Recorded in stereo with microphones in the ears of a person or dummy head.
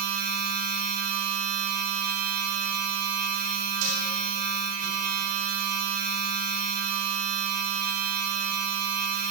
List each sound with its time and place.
0.0 s a machine running: 80° right, 1.6 m
3.8 s dishes clattering: 75° right (ahead or behind), 4.5 m